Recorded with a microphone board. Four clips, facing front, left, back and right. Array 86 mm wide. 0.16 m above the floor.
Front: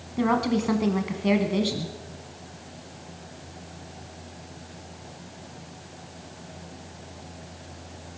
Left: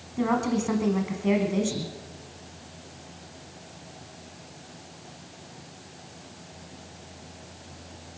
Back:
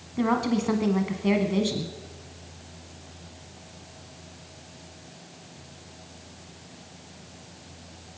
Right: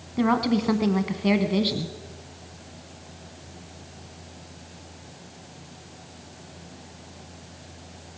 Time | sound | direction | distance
0.2 | a woman speaking | 75° right | 1.1 m